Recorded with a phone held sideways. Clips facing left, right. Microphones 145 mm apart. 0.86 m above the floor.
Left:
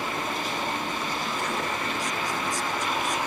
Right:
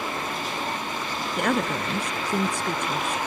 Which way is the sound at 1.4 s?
65° right (ahead or behind).